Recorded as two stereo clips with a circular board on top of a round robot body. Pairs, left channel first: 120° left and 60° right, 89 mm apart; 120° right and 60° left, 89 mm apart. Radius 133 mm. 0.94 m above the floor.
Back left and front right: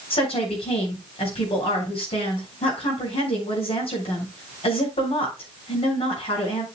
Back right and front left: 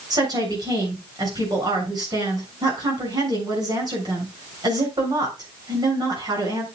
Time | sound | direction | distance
0.1 | a woman speaking | 105° left | 7 m